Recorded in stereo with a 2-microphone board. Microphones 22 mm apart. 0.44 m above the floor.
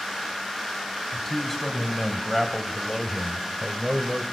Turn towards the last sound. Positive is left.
turn(degrees=-30)  # may be behind; listen again after turning